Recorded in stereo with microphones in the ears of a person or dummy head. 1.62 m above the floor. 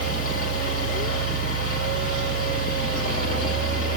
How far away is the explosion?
No explosion in this recording.